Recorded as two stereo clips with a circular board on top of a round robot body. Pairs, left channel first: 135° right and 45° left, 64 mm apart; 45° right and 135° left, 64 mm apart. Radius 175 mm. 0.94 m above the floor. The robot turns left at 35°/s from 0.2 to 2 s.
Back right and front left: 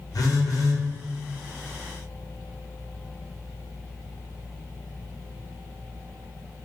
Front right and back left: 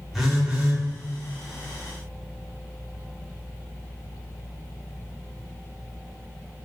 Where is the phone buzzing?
140° right, 1.4 m; by 0.8 s 160° right, 1.4 m.